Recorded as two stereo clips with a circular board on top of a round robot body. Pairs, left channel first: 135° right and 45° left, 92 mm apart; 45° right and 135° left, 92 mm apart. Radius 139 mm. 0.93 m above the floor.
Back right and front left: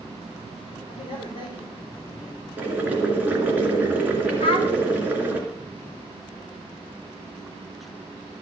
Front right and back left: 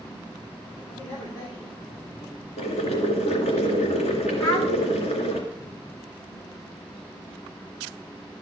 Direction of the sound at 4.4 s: 105° right.